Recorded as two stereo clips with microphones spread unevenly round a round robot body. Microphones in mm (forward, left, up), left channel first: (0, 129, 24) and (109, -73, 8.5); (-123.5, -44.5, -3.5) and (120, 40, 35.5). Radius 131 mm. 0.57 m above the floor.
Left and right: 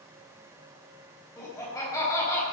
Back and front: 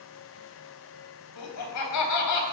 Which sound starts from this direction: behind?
Laughter, at 1.4 s.